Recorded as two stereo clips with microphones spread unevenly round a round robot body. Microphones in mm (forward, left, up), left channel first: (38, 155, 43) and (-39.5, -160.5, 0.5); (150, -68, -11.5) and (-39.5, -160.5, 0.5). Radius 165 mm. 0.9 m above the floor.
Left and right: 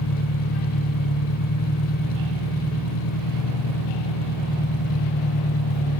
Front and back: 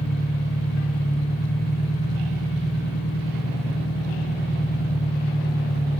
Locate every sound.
0.0 s an engine running: 70° left, 0.8 m